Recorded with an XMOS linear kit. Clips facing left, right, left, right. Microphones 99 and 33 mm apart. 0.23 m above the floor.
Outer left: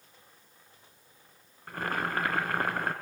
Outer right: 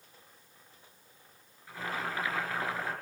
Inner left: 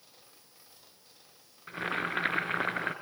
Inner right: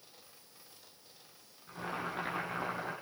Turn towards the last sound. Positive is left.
turn(degrees=60)  # may be behind; listen again after turning